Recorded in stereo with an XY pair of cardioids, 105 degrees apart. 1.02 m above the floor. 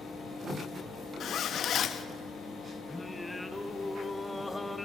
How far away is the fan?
About 4.5 m.